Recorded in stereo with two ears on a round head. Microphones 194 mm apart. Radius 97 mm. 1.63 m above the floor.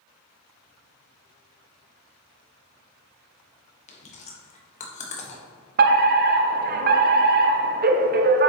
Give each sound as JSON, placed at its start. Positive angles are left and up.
{"t": 3.9, "sound": "chewing", "side_deg": 30, "distance_m": 1.4}
{"t": 5.8, "sound": "a fire alarm", "side_deg": -40, "distance_m": 0.6}